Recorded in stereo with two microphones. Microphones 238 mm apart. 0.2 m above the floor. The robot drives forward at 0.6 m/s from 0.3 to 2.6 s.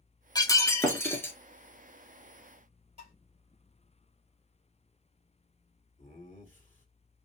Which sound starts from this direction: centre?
Breaking glass, at 0.3 s.